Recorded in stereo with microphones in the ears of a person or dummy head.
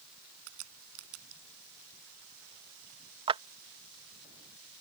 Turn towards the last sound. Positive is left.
turn(degrees=-25)  # may be behind; listen again after turning